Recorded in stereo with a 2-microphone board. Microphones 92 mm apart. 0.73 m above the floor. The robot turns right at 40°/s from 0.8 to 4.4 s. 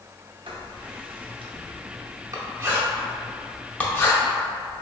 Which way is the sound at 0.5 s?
75° right (ahead or behind).